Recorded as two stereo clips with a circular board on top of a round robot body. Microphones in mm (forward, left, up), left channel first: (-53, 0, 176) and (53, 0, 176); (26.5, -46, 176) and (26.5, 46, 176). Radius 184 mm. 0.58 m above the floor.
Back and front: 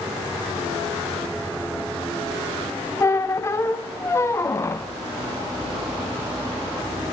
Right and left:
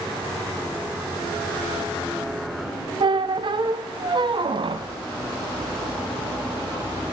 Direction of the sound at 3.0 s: 115° left.